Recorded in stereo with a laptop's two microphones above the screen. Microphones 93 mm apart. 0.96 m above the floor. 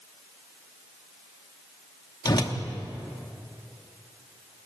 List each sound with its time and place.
2.2 s a whoosh: 40° left (ahead or behind), 0.9 m